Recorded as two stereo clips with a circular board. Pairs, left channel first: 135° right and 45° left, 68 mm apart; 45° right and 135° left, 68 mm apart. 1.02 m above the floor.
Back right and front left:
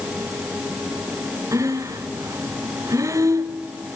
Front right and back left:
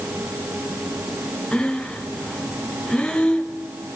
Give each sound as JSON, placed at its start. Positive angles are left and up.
{"t": 1.5, "sound": "breathing", "azimuth_deg": 30, "distance_m": 1.5}